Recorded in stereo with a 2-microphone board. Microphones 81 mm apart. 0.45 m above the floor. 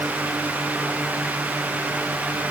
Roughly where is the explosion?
No explosion in this recording.